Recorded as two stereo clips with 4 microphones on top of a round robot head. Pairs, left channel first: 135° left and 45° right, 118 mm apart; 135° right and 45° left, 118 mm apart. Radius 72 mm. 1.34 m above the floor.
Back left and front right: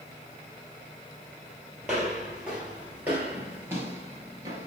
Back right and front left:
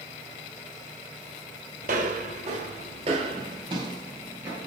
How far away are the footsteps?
About 2 m.